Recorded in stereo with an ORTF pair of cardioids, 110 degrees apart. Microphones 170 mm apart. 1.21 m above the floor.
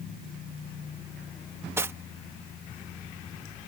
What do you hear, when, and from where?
1.8 s cutlery clinking: 15° right